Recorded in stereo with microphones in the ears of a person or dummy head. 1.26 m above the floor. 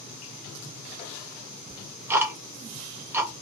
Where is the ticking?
10° right (ahead or behind), 0.5 m.